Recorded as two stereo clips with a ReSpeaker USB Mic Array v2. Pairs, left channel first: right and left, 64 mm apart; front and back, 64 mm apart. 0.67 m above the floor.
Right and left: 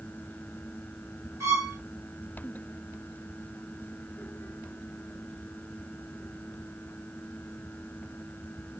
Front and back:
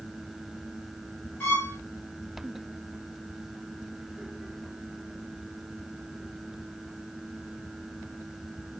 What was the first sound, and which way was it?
A violin, 60° left.